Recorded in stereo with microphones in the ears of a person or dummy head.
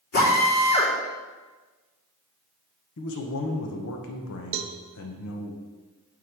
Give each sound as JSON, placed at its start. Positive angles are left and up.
{"t": 0.1, "sound": "a drill", "side_deg": 50, "distance_m": 3.5}
{"t": 3.0, "sound": "a man speaking", "side_deg": 70, "distance_m": 0.9}
{"t": 4.5, "sound": "a cowbell", "side_deg": -60, "distance_m": 0.6}